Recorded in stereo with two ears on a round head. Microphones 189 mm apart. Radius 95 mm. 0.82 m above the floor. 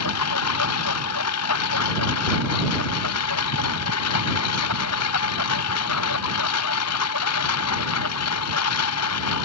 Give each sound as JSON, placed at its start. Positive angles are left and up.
{"t": 0.0, "sound": "a lawn mower", "side_deg": 85}